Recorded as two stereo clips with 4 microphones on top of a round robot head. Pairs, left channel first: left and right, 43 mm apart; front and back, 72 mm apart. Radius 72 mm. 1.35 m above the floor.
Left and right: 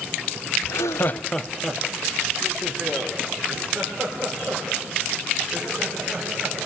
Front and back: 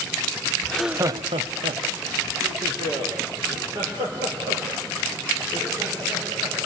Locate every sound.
0.6 s laughter: 70° left, 0.7 m; by 6.7 s 155° right, 8 m